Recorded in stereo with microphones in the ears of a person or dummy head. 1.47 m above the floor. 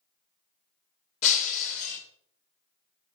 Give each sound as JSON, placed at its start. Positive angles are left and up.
{"t": 1.2, "sound": "breaking glass", "side_deg": 40, "distance_m": 2.0}